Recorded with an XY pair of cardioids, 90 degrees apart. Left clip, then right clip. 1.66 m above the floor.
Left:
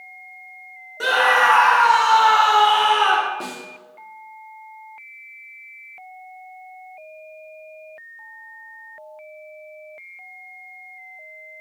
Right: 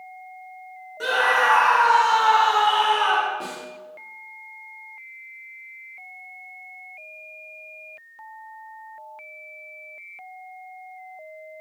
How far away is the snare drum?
About 3.5 m.